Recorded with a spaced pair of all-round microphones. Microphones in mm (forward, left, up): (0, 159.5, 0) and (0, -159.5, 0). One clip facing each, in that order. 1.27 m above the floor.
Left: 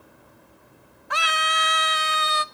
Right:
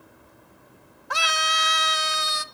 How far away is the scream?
About 0.7 m.